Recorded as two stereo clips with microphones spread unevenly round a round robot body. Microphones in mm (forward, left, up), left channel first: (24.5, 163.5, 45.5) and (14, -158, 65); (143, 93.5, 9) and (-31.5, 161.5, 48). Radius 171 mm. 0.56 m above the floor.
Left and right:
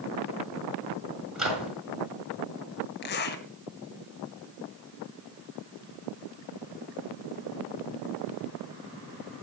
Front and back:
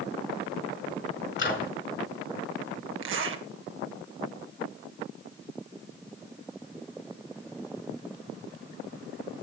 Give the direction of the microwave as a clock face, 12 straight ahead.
12 o'clock.